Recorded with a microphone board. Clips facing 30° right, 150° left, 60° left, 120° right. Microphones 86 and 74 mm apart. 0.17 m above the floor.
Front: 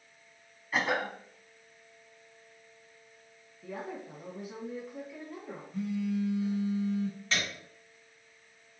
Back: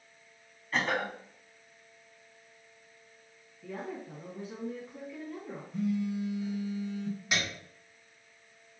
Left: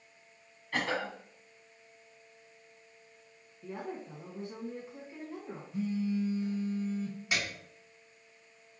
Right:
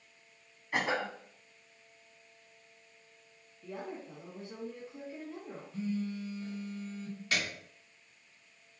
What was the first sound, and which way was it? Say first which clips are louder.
A cough: front 1 dB, right 1 dB; 100° right.